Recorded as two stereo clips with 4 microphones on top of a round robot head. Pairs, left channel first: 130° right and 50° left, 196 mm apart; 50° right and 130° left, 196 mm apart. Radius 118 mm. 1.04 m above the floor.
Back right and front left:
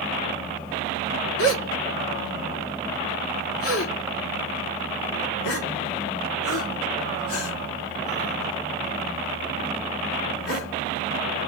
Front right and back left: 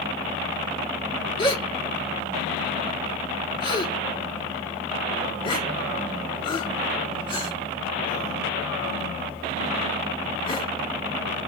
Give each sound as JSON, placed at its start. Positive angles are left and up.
{"t": 1.4, "sound": "a gasp", "azimuth_deg": -120, "distance_m": 1.6}